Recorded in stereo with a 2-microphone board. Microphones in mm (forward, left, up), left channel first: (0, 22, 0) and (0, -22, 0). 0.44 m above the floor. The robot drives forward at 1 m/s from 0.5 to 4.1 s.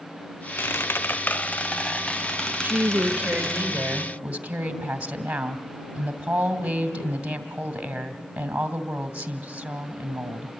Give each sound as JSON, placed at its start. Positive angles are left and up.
{"t": 0.6, "sound": "a squeak", "side_deg": 65, "distance_m": 0.6}
{"t": 2.6, "sound": "a woman speaking", "side_deg": -40, "distance_m": 1.3}